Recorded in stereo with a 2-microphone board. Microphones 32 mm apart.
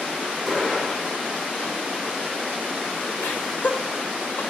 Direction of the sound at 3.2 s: 70° left (ahead or behind).